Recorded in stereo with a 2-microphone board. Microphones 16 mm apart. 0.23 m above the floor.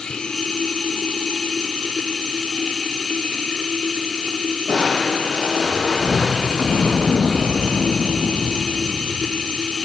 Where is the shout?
I don't hear a shout.